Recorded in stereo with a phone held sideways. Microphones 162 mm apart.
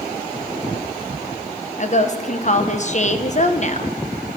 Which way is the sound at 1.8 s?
45° left (ahead or behind).